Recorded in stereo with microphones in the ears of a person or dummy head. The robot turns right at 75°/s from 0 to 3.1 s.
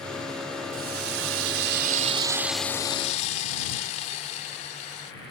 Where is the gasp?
No gasp in this recording.